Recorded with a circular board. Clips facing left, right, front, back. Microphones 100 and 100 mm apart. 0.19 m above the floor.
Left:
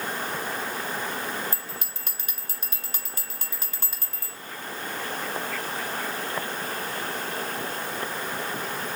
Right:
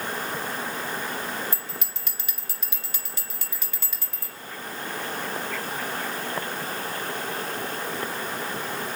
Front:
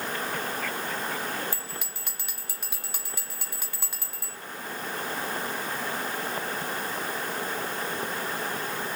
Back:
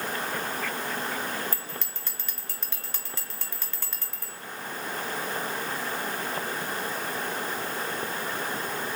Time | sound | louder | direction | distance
1.5 | a bell | right 1 dB, even | 75° left | 0.9 m